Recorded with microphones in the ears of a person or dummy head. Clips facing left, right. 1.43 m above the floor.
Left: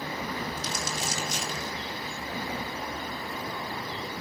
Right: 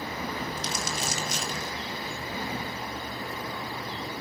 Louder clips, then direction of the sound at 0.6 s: Right 1 dB; 60° right (ahead or behind).